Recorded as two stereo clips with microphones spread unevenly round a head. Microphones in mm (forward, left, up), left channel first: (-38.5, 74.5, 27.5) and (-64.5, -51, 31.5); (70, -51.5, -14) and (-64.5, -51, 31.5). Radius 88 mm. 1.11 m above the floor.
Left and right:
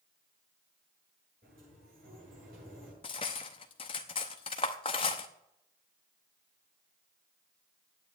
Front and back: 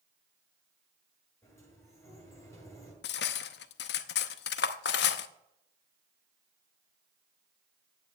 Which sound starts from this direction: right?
A sliding door, at 1.4 s.